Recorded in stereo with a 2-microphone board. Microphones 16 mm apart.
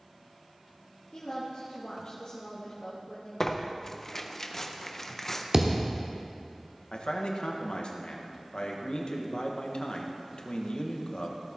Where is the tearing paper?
25° left (ahead or behind), 0.8 m.